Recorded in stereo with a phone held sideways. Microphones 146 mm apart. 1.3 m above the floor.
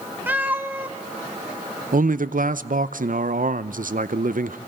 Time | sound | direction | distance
0.3 | a cat meowing | 15° right (ahead or behind) | 1.2 m
1.9 | a man speaking | 70° right (ahead or behind) | 0.6 m